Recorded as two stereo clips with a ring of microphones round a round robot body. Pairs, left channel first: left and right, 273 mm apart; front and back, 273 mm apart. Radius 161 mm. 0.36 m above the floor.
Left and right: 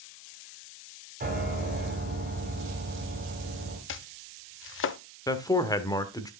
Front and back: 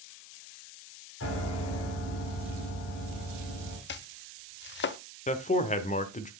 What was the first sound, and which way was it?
A piano, 35° right.